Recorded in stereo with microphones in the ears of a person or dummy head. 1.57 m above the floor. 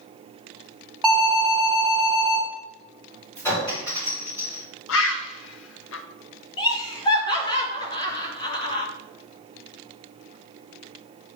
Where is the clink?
15° left (ahead or behind), 3.5 m.